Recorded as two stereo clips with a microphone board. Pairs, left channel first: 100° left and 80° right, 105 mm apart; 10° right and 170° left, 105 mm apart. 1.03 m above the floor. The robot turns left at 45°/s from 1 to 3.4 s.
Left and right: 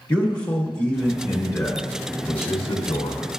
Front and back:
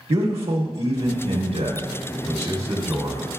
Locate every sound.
0.1 s a man speaking: 175° left, 1.1 m; by 3.3 s 75° left, 1.1 m